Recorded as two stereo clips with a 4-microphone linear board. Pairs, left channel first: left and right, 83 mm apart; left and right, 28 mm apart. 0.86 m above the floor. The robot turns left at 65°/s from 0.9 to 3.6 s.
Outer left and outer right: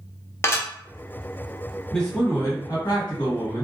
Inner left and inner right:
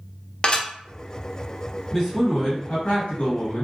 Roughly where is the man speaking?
Behind.